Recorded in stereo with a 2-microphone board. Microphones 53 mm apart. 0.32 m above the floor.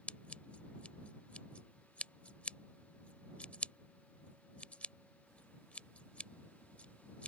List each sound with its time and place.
0.1 s scissors: 25° left (ahead or behind)